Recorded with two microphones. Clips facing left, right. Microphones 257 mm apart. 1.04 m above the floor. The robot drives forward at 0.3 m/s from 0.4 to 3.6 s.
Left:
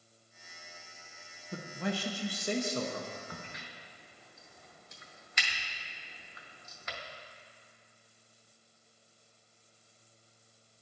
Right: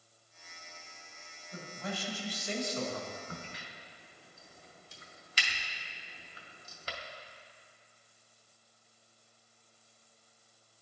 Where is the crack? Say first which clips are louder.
Right 1 dB; 30° right (ahead or behind), 0.7 m; by 7.0 s 35° right (ahead or behind), 0.7 m.